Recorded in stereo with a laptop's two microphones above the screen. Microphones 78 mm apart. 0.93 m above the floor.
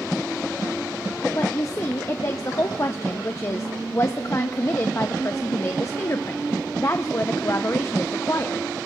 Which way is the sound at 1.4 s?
40° left (ahead or behind).